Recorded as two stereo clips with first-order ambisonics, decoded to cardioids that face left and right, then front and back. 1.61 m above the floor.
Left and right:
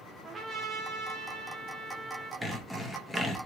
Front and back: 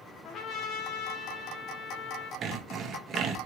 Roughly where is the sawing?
Behind.